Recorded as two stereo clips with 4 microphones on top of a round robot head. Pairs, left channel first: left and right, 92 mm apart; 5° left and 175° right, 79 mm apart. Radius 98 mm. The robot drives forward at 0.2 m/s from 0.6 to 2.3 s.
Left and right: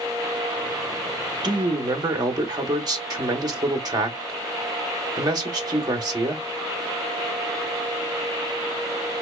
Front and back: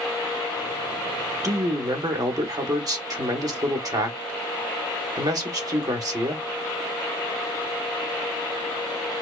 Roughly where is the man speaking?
Behind right.